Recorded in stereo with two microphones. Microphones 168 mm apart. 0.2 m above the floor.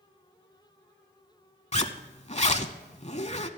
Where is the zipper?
40° left (ahead or behind), 0.7 m.